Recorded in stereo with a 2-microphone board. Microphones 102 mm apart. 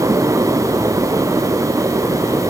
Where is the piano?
I don't hear a piano.